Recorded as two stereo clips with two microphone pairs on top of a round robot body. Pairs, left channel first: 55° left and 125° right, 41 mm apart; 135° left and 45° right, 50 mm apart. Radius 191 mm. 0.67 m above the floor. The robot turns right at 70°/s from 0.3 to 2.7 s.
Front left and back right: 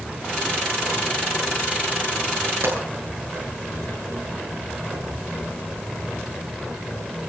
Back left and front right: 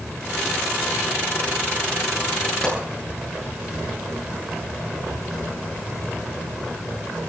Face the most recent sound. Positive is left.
turn(degrees=-140)